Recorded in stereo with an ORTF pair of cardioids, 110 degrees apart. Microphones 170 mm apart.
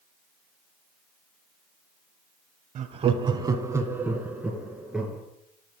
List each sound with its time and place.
2.8 s laughter: 50° right, 0.9 m; by 5.2 s 5° right, 3 m